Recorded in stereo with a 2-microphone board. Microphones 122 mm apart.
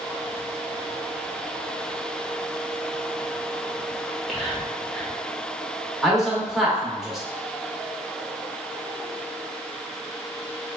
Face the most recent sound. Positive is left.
turn(degrees=0)  # may be behind; listen again after turning